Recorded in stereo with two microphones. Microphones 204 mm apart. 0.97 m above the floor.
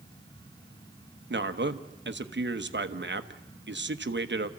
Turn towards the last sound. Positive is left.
turn(degrees=-60)  # may be behind; listen again after turning